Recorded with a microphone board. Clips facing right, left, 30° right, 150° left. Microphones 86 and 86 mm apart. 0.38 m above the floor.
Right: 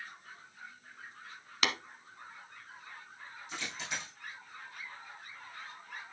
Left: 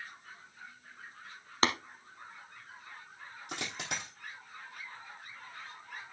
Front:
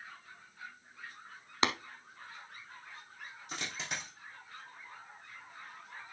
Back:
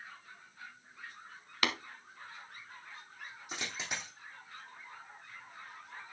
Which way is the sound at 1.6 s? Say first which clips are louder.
Left 4 dB, front 3 dB; 35° left.